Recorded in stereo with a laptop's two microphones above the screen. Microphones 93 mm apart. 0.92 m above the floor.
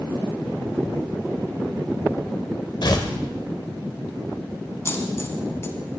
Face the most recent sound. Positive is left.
turn(degrees=30)  # may be behind; listen again after turning